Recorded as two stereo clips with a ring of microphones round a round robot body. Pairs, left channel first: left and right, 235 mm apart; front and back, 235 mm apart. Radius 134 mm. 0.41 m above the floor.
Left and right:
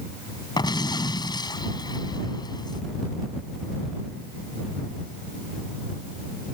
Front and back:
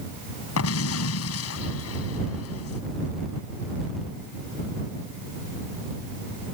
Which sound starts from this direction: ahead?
An explosion, at 0.6 s.